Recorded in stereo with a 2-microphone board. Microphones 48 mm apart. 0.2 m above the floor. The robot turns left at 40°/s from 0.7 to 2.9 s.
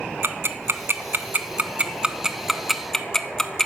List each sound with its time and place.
0.2 s ticking: 55° right (ahead or behind), 0.6 m; by 3.7 s 10° left (ahead or behind), 0.6 m